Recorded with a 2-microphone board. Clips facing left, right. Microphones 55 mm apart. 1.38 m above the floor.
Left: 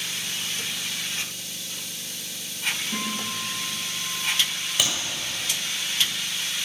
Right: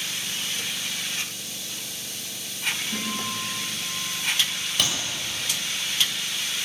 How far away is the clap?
About 6.5 m.